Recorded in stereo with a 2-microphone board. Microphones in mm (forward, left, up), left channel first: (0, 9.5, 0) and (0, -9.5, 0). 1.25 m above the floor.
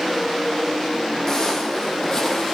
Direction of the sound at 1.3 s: 35° left (ahead or behind).